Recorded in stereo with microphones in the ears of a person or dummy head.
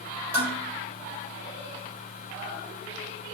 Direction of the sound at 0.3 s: 15° right (ahead or behind).